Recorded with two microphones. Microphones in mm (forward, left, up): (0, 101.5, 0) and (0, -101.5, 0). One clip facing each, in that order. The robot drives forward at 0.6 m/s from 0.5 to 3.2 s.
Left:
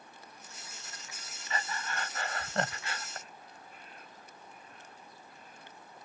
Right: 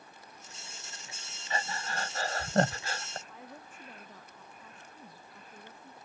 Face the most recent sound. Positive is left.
turn(degrees=-80)